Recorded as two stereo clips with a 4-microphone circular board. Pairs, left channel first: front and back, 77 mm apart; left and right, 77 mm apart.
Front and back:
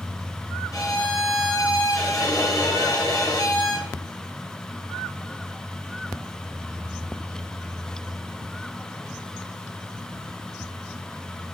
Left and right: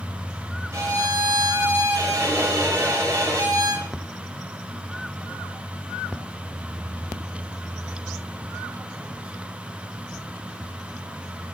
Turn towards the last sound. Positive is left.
turn(degrees=-45)